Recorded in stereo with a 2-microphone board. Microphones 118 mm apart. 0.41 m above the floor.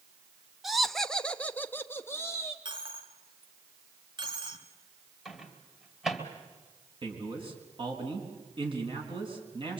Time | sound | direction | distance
0.6 | laughter | centre (ahead or behind) | 1.0 m
2.6 | a dropped coin | 40° right (ahead or behind) | 1.6 m
5.2 | a microwave | 5° right (ahead or behind) | 2.5 m
7.0 | a man speaking | 45° right (ahead or behind) | 4.5 m